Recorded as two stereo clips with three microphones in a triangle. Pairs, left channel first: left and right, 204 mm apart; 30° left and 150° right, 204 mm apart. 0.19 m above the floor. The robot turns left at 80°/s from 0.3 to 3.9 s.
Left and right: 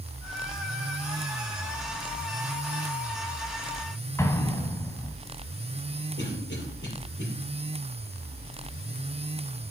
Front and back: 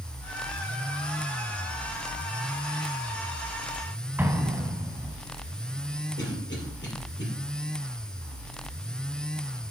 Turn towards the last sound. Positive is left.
turn(degrees=60)